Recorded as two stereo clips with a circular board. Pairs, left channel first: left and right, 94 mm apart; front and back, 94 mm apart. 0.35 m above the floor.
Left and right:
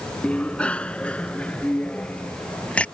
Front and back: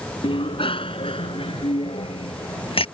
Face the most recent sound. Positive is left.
turn(degrees=10)